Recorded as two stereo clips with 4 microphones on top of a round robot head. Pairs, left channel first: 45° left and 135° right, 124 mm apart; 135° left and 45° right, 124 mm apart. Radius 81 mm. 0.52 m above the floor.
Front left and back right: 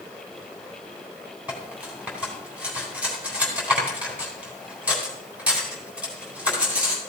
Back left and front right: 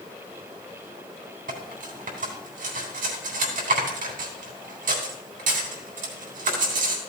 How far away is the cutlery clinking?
About 3.5 m.